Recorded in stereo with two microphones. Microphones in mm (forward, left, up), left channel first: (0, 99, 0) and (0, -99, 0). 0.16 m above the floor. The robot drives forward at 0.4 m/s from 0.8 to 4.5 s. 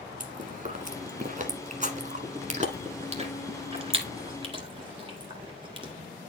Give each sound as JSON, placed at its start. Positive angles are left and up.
{"t": 0.2, "sound": "chewing", "side_deg": -40, "distance_m": 1.2}